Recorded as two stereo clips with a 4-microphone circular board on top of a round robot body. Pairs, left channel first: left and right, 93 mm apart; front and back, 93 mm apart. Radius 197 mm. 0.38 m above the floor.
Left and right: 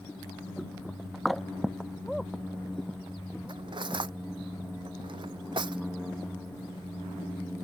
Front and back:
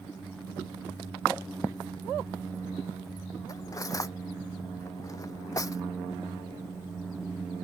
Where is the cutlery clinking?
55° right.